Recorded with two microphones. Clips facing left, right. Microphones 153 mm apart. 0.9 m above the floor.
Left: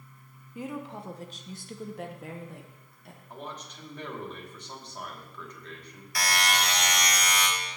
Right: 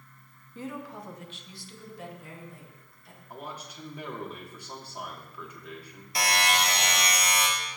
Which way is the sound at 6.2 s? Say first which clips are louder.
Right 2 dB; 25° right (ahead or behind).